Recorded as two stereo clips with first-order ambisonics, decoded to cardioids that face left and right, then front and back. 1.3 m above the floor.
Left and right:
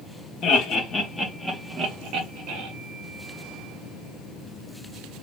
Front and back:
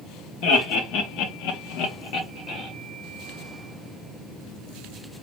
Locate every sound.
0.4 s laughter: 35° left, 0.9 m; by 2.7 s 60° right, 0.8 m